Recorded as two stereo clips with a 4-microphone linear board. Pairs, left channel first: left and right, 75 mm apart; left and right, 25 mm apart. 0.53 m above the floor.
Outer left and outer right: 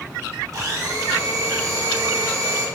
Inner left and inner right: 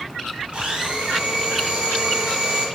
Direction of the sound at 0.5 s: 50° right (ahead or behind).